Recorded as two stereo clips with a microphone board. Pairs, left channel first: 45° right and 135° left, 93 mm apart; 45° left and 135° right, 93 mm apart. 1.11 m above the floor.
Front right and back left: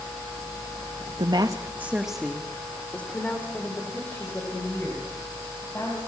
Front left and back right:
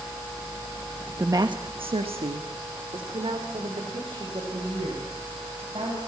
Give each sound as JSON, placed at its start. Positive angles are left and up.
{"t": 1.2, "sound": "a woman speaking", "azimuth_deg": 165, "distance_m": 1.0}